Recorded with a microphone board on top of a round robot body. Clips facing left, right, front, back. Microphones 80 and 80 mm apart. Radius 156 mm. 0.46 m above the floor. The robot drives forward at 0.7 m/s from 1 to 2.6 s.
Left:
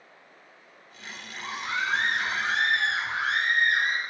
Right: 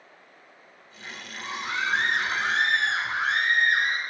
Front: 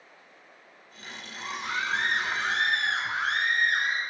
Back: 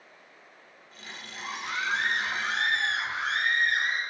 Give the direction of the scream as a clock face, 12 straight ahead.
1 o'clock.